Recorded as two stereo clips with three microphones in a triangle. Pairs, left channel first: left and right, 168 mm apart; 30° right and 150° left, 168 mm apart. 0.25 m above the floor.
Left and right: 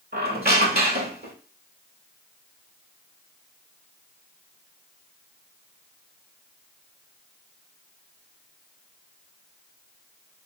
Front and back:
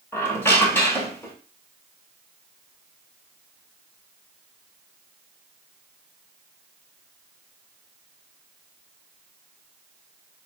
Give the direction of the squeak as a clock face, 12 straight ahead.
4 o'clock.